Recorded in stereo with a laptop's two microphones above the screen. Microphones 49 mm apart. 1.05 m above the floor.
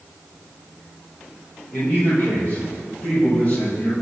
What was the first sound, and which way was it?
A man speaking, 35° left (ahead or behind).